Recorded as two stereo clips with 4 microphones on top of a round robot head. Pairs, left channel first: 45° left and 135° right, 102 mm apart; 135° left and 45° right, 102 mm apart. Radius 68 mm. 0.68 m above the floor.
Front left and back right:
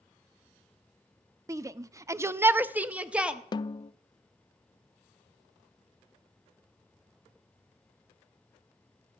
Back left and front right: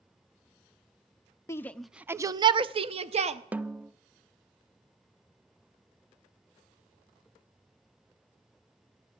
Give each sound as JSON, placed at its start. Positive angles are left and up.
{"t": 1.5, "sound": "a shout", "azimuth_deg": 180, "distance_m": 0.6}
{"t": 3.5, "sound": "a snare drum", "azimuth_deg": 25, "distance_m": 0.5}